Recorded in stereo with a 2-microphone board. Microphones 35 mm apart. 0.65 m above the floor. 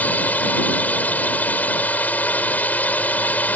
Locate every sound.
0.0 s a drone: 50° left (ahead or behind)